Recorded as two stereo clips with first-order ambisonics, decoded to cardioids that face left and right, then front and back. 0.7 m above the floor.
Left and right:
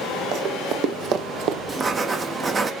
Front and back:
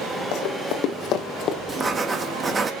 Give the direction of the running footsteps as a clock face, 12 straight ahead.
1 o'clock.